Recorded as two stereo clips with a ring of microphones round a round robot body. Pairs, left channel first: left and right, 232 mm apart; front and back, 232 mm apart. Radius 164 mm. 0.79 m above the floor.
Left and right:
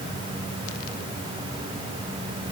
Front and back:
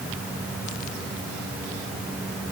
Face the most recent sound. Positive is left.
No sound to turn to.